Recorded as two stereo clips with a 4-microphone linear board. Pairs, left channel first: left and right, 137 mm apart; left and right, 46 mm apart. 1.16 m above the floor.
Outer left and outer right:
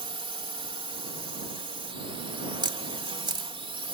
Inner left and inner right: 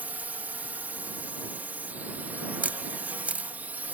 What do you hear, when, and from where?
0.0 s a drone: 40° right (ahead or behind)
2.6 s a camera shutter: 35° right (ahead or behind)